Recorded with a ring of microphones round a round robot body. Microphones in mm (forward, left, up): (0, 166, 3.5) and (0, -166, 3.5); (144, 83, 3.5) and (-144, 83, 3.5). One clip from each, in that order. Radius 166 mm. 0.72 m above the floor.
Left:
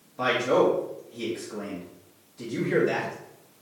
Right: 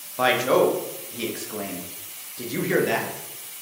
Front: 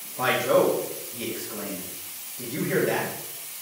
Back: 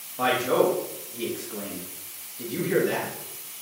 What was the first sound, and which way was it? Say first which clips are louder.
A man speaking: right 3 dB, front 1 dB; 95° right.